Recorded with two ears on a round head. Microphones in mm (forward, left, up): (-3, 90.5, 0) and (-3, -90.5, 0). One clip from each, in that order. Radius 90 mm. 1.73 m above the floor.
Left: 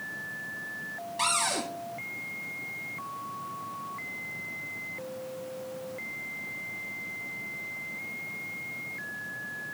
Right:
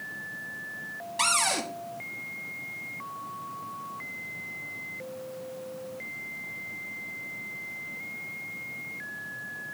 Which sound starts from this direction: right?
A cupboard door, at 1.2 s.